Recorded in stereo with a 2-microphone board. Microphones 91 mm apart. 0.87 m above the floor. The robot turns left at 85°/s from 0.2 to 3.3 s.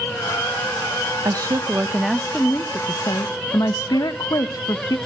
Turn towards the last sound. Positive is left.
turn(degrees=85)